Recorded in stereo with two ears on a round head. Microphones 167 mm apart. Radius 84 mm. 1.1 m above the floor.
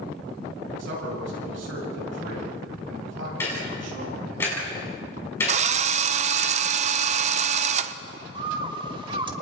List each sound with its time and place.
0.8 s a man speaking: 70° right (ahead or behind), 7 m
3.4 s ticking: 15° left (ahead or behind), 7 m
5.5 s a drill: 35° right (ahead or behind), 0.6 m
8.3 s a bird: 25° right (ahead or behind), 1.2 m